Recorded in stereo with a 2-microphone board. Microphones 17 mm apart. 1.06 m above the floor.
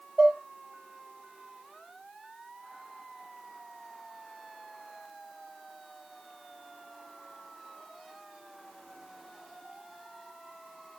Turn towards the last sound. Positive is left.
turn(degrees=-80)